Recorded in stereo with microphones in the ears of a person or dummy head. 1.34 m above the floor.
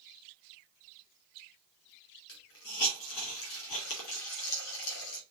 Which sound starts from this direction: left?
A hiss, at 2.3 s.